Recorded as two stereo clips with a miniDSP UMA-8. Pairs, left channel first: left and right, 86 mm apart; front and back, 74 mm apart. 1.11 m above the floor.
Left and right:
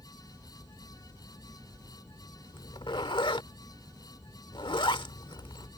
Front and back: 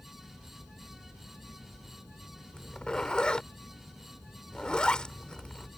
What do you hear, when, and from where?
2.5 s a zipper: 80° left